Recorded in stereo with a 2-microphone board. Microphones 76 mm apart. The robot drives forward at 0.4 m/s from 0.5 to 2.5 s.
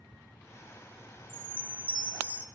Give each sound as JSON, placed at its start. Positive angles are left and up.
{"t": 1.3, "sound": "a chime", "side_deg": -25, "distance_m": 1.9}